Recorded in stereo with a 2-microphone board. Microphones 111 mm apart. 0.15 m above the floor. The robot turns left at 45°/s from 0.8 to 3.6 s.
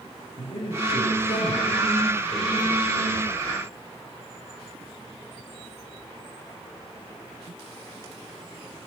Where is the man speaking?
75° left, 10 m; by 3.2 s 35° right, 10 m.